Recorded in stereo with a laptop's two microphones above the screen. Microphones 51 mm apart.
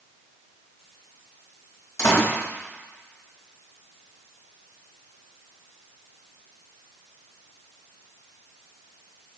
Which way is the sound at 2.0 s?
70° left (ahead or behind).